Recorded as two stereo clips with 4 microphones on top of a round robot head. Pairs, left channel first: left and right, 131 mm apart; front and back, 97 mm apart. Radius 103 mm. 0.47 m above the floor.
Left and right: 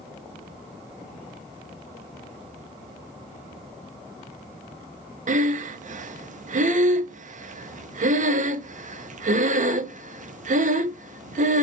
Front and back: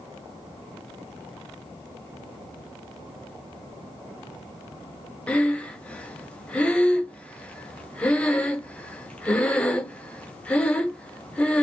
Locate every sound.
5.3 s breathing: 75° right, 0.7 m